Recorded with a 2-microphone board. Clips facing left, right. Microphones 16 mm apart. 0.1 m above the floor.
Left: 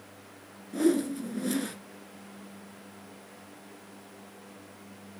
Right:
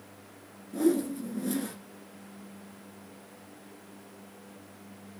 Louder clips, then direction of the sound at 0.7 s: Left 1 dB; 25° left (ahead or behind).